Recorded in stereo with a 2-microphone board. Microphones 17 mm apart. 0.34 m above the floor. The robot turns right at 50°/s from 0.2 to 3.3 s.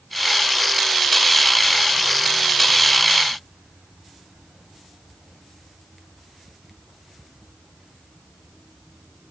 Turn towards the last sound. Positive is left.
No sound to turn to.